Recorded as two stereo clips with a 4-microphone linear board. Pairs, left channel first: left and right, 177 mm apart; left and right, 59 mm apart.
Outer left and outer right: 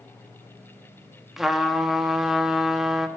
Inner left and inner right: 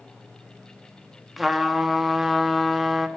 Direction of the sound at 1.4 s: Centre (ahead or behind).